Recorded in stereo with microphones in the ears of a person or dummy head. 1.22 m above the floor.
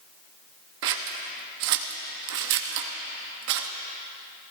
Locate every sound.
0.8 s scissors: 65° right (ahead or behind), 1.0 m